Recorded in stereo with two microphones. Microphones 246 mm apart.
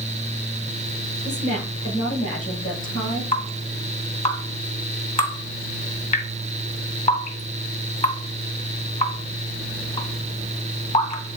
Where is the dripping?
30° left (ahead or behind), 1.7 m.